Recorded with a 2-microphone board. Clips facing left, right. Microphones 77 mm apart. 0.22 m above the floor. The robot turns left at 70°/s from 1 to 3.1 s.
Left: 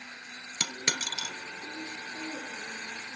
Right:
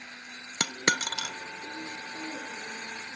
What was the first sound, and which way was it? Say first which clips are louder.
A dropped coin: right 6 dB; 50° right (ahead or behind).